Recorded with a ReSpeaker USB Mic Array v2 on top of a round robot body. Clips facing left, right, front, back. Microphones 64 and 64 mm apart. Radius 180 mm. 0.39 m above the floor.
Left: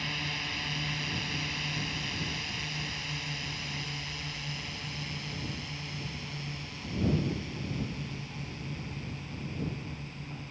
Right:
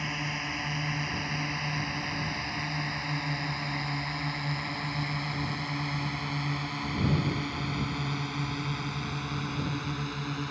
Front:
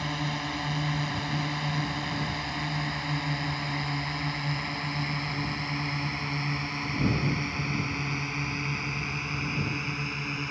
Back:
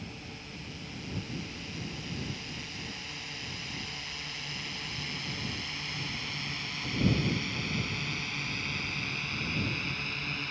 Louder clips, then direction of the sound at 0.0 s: Right 3 dB, front 13 dB; 20° right.